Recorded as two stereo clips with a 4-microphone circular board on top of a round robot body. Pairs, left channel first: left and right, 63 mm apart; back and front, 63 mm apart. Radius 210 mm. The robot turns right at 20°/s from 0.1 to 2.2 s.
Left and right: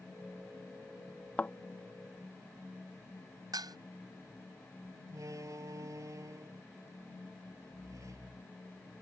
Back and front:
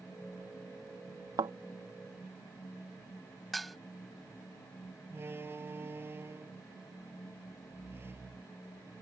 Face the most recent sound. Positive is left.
turn(degrees=-55)